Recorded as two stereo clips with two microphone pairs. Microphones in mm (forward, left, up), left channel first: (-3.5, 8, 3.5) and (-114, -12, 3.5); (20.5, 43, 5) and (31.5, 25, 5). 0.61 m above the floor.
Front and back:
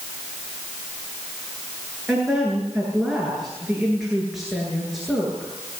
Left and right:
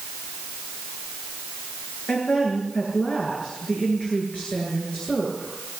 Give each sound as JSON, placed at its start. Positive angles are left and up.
{"t": 2.1, "sound": "a woman speaking", "azimuth_deg": 105, "distance_m": 9.5}